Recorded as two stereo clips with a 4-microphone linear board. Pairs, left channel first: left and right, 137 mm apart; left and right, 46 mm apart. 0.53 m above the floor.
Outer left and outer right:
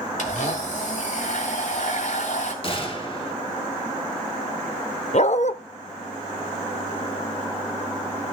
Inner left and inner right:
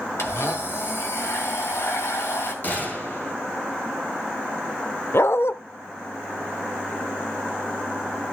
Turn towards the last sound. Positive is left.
turn(degrees=55)  # may be behind; listen again after turning